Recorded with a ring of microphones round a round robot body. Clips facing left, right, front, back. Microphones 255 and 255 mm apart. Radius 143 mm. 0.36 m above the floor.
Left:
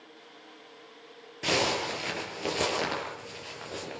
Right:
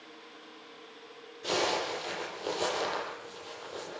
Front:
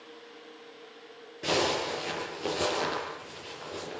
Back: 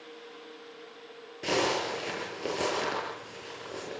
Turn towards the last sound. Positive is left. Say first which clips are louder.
# left 2 dB, even
turn(degrees=90)